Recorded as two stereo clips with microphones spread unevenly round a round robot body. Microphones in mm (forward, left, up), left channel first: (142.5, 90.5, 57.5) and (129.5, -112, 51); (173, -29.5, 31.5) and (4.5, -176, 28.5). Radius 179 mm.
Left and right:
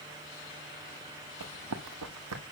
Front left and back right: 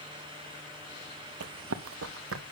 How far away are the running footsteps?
About 0.9 m.